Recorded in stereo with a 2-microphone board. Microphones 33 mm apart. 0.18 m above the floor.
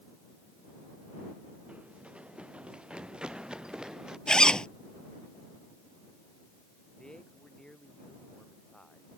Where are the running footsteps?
40° right (ahead or behind); by 4.2 s 20° right (ahead or behind).